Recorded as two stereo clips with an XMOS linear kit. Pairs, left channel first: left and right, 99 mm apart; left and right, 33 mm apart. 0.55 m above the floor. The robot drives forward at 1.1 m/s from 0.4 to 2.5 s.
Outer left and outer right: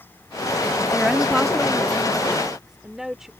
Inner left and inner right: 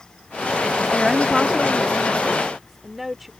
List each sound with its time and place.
0.9 s a woman speaking: 5° right (ahead or behind)